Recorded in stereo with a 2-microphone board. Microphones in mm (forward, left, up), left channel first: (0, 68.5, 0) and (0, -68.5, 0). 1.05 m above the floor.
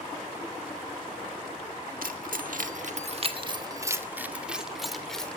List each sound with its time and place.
2.0 s keys jangling: 85° right, 1.9 m; by 5.4 s 5° left (ahead or behind), 3 m